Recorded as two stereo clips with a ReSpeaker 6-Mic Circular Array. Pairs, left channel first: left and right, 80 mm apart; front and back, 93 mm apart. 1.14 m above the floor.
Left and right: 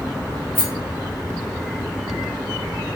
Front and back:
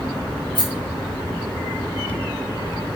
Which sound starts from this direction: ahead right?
A rattle, at 0.6 s.